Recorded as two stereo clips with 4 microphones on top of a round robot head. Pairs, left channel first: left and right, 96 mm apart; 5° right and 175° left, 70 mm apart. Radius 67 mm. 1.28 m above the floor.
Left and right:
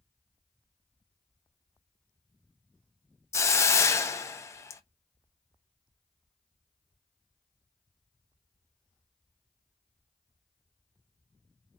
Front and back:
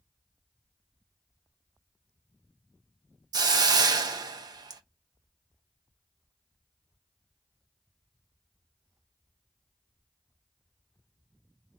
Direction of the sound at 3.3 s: 150° left.